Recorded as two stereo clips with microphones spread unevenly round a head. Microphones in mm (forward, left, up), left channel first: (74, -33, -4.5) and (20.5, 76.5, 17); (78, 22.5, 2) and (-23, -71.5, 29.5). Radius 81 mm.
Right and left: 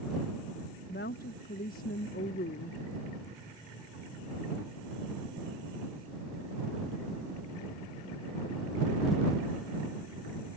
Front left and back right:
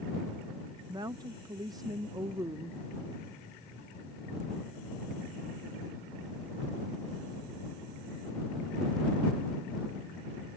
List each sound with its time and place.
0.9 s a woman speaking: 75° right